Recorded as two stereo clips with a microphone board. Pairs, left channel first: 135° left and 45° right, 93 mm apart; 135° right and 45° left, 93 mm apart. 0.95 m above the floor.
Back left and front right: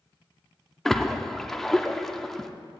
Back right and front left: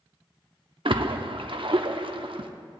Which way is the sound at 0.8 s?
50° left.